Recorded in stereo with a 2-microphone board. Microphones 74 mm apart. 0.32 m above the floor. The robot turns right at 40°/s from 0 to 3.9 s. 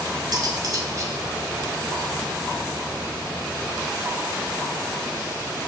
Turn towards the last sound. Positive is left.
turn(degrees=55)